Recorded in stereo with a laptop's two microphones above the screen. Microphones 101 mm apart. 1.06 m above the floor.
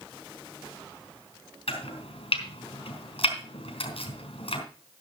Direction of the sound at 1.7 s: 70° left (ahead or behind).